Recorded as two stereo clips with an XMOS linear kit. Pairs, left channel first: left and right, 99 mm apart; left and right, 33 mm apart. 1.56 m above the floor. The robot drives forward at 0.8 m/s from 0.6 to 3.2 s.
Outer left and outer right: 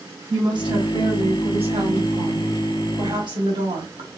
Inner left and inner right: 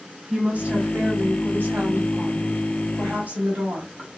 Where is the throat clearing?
No throat clearing in this recording.